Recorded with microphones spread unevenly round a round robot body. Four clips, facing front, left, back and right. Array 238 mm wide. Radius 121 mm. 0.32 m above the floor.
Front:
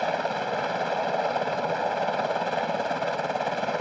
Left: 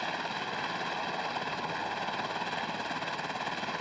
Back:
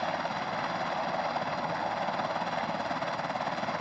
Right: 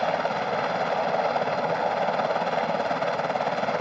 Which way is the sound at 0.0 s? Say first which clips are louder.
Right 11 dB, front 5 dB; 55° right.